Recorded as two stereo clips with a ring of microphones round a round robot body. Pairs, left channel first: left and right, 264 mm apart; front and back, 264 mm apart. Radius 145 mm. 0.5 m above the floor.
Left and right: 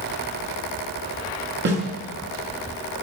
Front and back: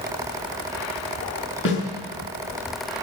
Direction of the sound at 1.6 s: 45° right.